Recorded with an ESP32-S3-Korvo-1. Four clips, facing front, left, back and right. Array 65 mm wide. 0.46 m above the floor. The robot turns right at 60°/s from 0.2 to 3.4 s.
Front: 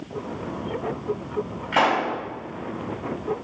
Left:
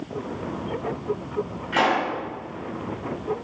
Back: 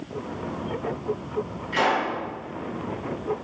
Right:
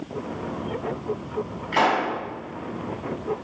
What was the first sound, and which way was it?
A pop, 10° right.